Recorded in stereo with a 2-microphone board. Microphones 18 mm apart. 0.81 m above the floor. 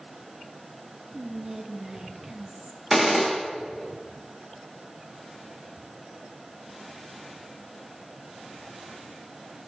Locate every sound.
1.1 s whispering: 30° right (ahead or behind), 0.6 m
2.9 s a gunshot: 20° right (ahead or behind), 1.5 m